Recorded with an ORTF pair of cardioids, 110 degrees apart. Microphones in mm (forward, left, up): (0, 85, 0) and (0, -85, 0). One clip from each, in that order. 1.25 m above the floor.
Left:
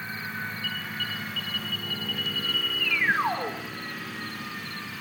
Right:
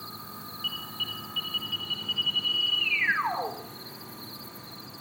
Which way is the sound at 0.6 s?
15° left.